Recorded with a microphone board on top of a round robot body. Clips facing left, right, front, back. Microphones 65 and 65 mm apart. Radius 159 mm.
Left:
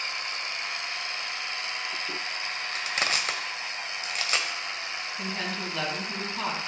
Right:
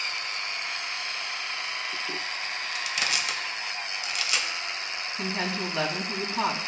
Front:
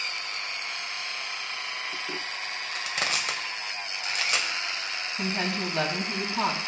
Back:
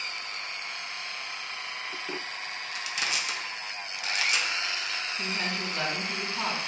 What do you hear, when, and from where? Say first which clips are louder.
2.7 s crushing: left 2 dB, front 2 dB; 40° left, 1.4 m
5.2 s a woman speaking: right 4 dB, front 5 dB; 20° right, 3.5 m